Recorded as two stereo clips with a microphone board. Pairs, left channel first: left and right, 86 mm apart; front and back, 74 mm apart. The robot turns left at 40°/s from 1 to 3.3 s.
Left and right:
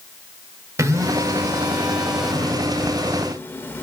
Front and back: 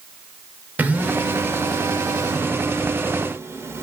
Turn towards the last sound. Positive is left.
turn(degrees=145)